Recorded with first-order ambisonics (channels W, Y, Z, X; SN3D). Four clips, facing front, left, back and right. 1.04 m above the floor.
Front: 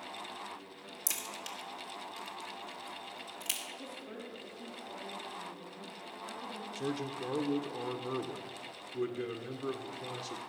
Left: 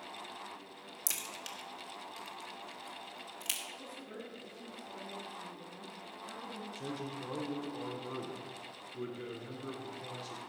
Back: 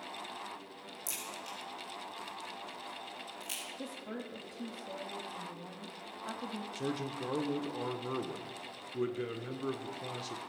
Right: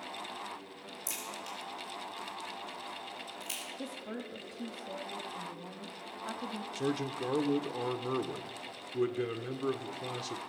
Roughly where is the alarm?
I don't hear an alarm.